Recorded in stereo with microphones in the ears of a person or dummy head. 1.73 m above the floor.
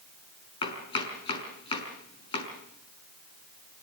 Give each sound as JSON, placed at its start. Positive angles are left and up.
{"t": 0.6, "sound": "chopping", "side_deg": 35, "distance_m": 5.5}